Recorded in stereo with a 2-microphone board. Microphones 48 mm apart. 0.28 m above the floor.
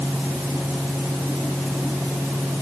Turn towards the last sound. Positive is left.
No sound to turn to.